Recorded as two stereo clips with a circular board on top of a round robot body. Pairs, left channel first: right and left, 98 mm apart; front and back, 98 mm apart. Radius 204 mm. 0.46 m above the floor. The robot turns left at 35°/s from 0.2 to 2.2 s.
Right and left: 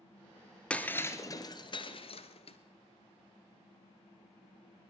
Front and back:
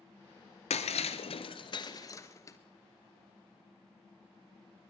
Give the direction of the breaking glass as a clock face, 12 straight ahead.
12 o'clock.